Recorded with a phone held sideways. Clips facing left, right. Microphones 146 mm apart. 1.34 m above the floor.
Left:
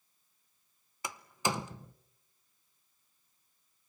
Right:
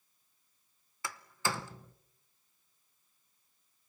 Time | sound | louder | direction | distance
1.0 | a door slam | left 2 dB | 20° left (ahead or behind) | 0.7 m